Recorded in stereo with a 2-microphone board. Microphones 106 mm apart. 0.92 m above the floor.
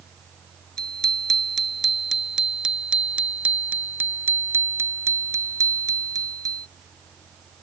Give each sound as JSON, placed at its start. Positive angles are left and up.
{"t": 0.8, "sound": "a bicycle bell", "side_deg": 5}